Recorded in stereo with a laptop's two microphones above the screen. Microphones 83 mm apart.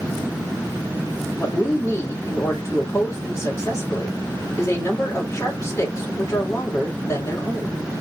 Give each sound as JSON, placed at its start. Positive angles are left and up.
{"t": 1.4, "sound": "a woman speaking", "side_deg": 40, "distance_m": 2.0}